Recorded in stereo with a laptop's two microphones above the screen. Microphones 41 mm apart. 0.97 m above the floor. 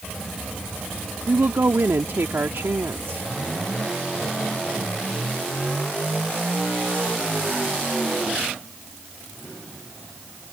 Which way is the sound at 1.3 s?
75° right (ahead or behind).